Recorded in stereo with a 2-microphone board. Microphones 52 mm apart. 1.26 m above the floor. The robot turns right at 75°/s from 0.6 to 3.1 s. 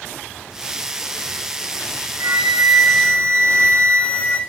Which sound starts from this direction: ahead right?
A flute, at 2.2 s.